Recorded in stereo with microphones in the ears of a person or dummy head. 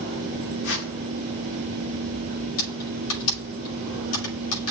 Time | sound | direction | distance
0.6 | a whoosh | 60° left (ahead or behind) | 1.6 m
2.6 | typing on a keyboard | 85° left | 6 m